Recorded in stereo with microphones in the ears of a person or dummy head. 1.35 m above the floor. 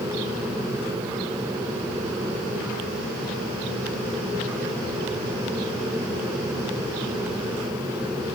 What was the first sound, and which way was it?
Only background noise.